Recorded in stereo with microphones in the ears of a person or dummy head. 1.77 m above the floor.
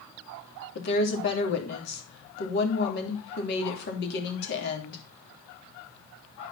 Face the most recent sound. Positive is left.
turn(degrees=60)  # may be behind; listen again after turning